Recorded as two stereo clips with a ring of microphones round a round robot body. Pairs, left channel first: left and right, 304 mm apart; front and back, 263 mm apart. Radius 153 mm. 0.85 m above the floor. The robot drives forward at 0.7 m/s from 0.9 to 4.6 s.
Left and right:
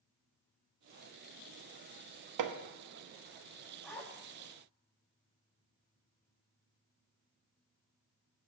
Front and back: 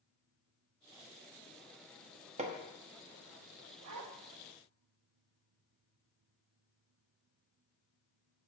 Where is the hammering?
110° right, 1.0 m; by 2.6 s 120° right, 1.1 m.